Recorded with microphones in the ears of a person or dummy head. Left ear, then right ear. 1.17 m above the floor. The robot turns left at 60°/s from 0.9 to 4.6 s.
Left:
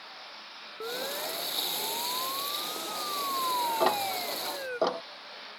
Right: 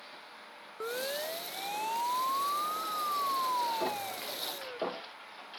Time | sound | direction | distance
0.8 | a siren | 20° right (ahead or behind) | ?
3.8 | ticking | 45° left (ahead or behind) | ?